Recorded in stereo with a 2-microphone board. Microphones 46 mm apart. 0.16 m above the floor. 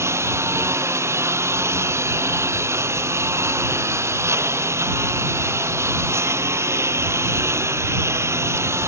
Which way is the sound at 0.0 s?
80° right.